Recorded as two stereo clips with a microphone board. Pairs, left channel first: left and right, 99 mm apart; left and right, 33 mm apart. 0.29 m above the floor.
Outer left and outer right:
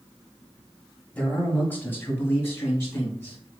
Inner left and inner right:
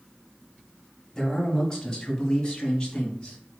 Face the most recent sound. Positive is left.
turn(degrees=25)  # may be behind; listen again after turning